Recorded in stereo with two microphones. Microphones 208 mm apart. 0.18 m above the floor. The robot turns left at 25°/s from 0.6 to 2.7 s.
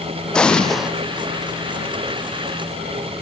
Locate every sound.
0.3 s an explosion: 5° left (ahead or behind), 1.2 m; by 0.9 s 5° right (ahead or behind), 1.2 m